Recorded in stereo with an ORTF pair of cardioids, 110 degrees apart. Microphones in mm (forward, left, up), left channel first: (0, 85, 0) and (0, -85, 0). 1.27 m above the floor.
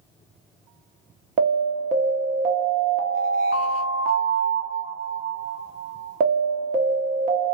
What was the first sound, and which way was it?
An alarm, 60° right.